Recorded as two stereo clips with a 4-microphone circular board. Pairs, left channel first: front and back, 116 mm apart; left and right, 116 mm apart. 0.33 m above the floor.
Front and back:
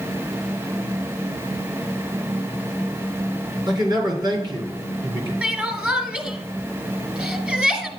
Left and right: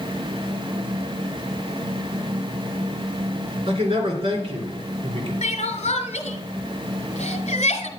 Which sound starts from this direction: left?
Crying, at 5.4 s.